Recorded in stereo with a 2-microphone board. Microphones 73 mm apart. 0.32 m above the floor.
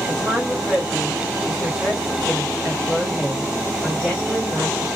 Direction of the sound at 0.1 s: 5° left (ahead or behind).